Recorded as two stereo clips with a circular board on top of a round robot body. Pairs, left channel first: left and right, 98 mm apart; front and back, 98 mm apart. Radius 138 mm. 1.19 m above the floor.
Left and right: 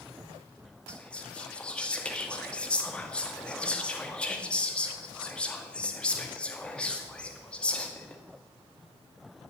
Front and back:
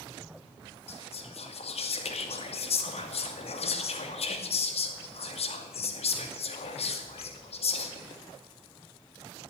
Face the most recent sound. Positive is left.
turn(degrees=10)